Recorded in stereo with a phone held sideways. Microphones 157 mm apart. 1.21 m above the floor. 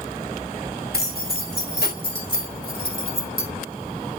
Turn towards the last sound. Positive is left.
turn(degrees=60)  # may be behind; listen again after turning